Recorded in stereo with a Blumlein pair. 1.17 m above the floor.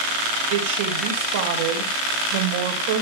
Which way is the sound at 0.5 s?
50° right.